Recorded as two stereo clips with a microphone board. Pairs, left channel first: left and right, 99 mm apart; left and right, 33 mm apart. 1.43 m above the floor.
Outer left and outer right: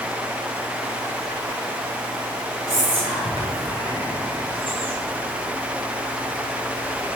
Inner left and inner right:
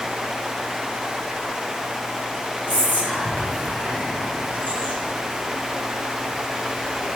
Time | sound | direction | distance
2.7 | whispering | 65° right (ahead or behind) | 1.7 m